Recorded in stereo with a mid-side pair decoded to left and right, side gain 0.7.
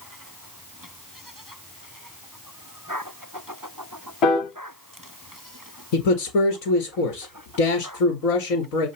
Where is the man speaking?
70° left, 1.5 m.